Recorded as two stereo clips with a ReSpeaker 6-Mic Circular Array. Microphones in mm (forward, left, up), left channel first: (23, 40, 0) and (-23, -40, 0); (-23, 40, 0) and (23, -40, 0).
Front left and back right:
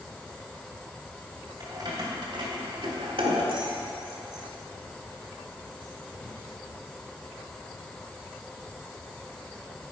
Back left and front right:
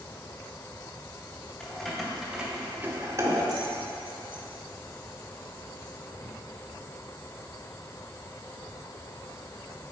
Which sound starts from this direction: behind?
Keys jangling, at 1.6 s.